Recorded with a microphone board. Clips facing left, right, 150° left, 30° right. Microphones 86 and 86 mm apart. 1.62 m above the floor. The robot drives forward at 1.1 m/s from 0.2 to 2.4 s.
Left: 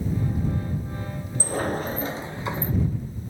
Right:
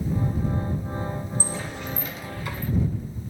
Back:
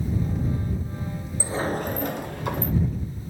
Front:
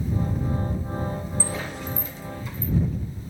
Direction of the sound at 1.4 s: 80° left.